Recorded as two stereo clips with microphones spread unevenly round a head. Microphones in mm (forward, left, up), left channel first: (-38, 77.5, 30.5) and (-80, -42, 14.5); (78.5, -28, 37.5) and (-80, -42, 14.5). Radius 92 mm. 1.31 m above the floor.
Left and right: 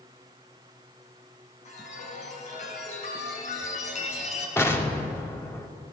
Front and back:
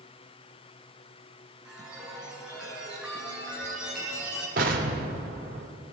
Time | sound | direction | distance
1.6 | a chime | 95° left | 5.5 m
4.6 | an explosion | 140° left | 2.5 m